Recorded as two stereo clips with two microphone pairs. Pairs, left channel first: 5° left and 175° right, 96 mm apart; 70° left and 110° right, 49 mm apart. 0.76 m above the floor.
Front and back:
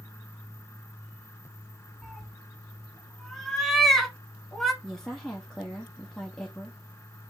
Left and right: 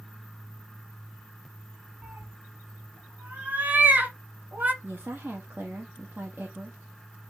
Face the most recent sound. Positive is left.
turn(degrees=-80)